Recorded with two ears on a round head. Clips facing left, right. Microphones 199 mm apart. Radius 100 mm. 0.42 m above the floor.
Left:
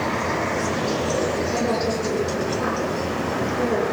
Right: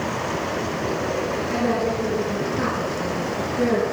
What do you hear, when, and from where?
1.5 s a woman speaking: 60° right (ahead or behind), 7 m; by 3.8 s 75° right (ahead or behind), 6 m